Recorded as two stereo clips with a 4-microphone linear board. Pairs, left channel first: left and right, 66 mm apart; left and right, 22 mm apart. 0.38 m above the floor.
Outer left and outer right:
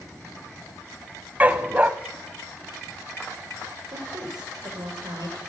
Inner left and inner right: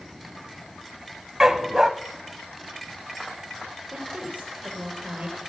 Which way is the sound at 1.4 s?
25° right (ahead or behind).